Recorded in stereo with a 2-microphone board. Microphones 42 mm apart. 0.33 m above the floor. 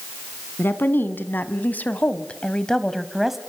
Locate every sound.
0.6 s a woman speaking: 70° left (ahead or behind), 3 m; by 3.4 s 5° right (ahead or behind), 1.9 m